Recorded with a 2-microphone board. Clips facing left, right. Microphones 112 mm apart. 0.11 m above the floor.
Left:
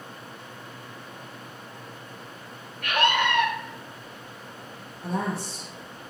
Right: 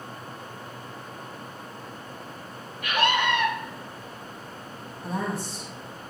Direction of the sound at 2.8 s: 55° left (ahead or behind).